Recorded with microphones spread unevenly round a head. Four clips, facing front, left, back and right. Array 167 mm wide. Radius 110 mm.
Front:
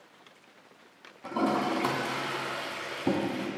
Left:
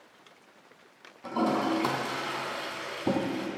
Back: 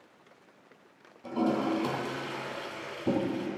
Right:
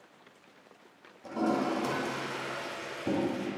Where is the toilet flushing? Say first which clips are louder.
Left 2 dB, even; 40° left, 2.5 m.